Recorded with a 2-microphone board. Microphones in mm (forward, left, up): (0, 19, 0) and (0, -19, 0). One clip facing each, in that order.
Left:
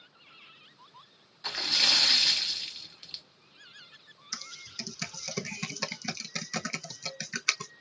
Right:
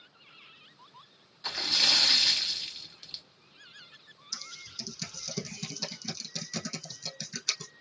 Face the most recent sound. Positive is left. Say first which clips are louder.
# left 2 dB
turn(degrees=75)  # may be behind; listen again after turning